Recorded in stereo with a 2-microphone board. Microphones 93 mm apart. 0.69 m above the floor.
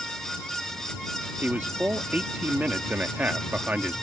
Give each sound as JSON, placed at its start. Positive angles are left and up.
{"t": 1.4, "sound": "a man speaking", "side_deg": -20}